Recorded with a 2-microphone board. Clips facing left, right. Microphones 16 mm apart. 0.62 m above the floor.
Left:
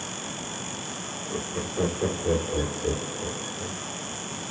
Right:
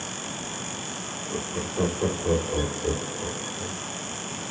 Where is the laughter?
Centre (ahead or behind), 1.8 m.